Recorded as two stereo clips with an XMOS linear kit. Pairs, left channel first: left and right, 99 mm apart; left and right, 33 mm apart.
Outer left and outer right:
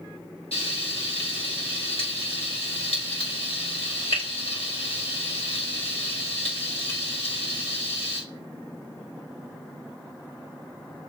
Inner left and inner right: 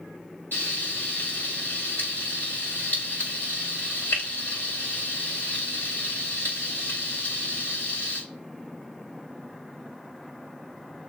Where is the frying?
75° left (ahead or behind), 5 m.